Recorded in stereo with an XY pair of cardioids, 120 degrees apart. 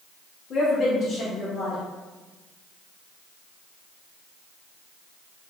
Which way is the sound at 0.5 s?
50° left.